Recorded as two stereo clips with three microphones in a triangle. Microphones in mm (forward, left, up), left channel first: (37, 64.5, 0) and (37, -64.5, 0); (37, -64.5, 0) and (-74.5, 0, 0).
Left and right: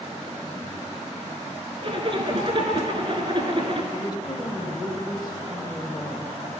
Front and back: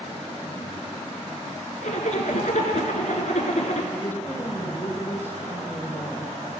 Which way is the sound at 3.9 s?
40° left.